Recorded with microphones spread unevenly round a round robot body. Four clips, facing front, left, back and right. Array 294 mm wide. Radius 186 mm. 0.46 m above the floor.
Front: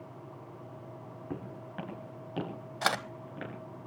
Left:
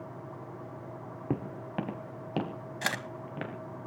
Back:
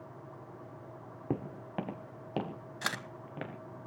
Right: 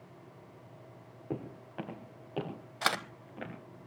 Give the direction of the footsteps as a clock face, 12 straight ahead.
8 o'clock.